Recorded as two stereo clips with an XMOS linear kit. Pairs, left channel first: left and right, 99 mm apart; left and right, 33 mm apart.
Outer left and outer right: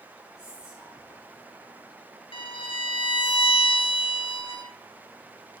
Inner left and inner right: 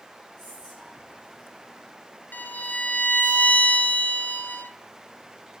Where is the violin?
70° left (ahead or behind), 0.6 m.